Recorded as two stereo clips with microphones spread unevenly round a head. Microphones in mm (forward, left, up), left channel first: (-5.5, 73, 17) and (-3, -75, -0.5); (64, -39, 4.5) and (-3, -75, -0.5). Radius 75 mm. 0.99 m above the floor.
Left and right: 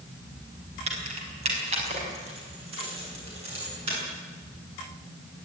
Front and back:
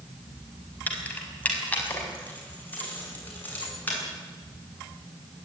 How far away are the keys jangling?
About 5 m.